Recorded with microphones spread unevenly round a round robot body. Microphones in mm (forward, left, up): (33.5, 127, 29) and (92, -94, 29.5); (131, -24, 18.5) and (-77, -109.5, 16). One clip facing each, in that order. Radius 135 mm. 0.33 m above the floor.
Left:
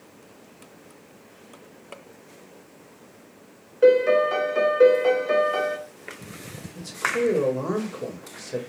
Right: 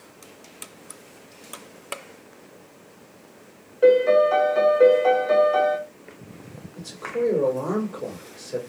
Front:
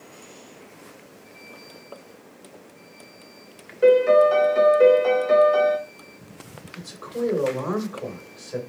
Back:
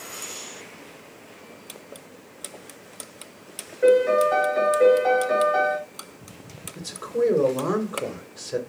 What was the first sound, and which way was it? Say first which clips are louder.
A piano: right 1 dB, front 2 dB; 60° left.